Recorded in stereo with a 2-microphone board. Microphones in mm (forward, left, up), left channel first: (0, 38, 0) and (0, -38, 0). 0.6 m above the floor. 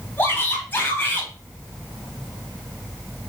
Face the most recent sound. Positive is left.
turn(degrees=25)  # may be behind; listen again after turning